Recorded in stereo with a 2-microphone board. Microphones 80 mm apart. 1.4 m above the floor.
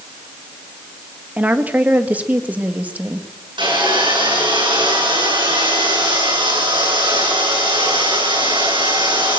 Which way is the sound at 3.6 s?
85° right.